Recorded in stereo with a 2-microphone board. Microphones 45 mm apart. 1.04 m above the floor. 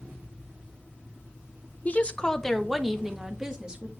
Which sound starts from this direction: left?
A woman speaking, at 1.9 s.